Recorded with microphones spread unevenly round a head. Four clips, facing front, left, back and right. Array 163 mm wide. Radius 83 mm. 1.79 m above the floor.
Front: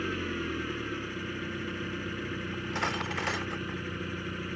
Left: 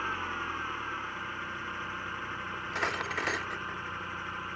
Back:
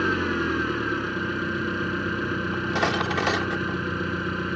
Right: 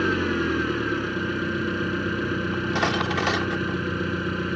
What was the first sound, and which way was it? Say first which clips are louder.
An engine running: right 12 dB, back 9 dB; 125° right.